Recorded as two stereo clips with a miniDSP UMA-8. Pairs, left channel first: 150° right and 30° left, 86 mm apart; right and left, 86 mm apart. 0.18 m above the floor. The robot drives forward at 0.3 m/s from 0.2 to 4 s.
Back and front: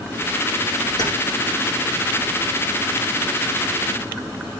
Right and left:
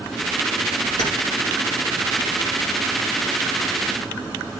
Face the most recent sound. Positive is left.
turn(degrees=-135)